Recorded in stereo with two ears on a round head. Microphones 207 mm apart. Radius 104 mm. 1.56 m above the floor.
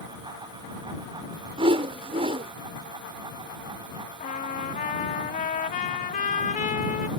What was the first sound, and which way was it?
A whoosh, 25° right (ahead or behind).